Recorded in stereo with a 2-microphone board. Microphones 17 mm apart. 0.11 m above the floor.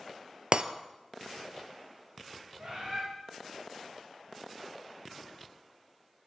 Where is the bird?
50° right (ahead or behind), 7 m.